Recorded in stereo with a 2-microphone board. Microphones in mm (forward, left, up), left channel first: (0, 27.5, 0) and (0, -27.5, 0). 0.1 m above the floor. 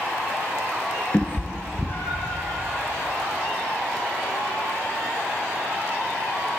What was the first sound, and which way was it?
A cat meowing, 35° left (ahead or behind).